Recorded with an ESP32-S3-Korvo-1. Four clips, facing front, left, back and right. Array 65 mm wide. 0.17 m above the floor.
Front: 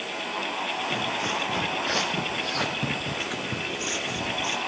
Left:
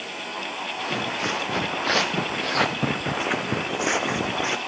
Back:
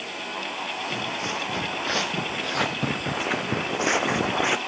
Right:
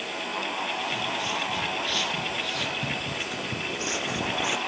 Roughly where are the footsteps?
Left.